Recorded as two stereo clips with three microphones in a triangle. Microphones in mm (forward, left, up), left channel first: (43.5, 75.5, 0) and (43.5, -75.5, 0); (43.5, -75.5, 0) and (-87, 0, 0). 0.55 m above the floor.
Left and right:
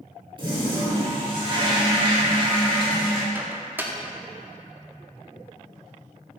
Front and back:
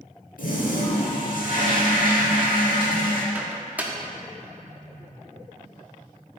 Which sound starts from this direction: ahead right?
A toilet flushing, at 0.4 s.